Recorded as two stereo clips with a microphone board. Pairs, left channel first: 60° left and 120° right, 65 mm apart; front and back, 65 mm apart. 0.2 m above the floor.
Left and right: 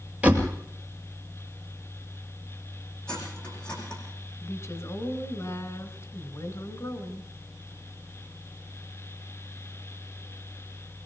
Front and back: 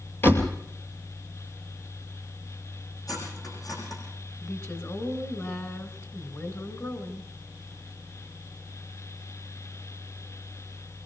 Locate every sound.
0.2 s a door slam: 50° right, 2.5 m
3.1 s cutlery clinking: 15° right, 7 m
4.4 s a woman speaking: 30° left, 2 m